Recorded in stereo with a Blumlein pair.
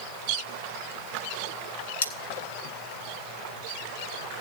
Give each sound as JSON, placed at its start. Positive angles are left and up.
{"t": 2.0, "sound": "cutlery clinking", "azimuth_deg": 65, "distance_m": 1.8}